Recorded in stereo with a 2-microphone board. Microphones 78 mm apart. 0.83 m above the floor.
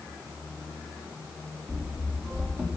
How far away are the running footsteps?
About 2.5 m.